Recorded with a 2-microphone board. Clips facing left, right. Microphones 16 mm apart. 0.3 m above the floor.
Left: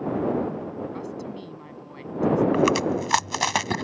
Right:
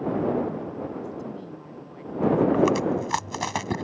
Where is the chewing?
30° left (ahead or behind).